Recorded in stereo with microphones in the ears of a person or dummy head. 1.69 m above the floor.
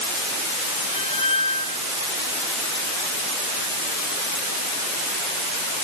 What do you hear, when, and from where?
0.9 s a squeak: 25° left (ahead or behind)